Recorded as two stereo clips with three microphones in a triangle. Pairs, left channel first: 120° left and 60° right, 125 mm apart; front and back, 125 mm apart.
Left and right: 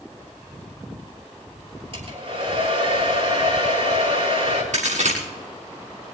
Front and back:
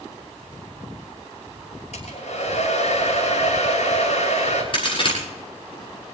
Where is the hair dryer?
25° right, 7 m.